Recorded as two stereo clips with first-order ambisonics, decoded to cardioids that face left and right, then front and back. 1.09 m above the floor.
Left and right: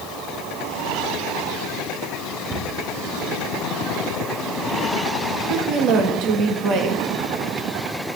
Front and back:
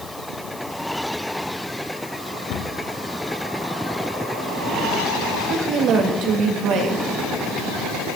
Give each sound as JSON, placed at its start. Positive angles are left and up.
{"t": 2.5, "sound": "a cupboard door", "azimuth_deg": -25, "distance_m": 1.4}
{"t": 5.3, "sound": "a woman speaking", "azimuth_deg": -135, "distance_m": 2.0}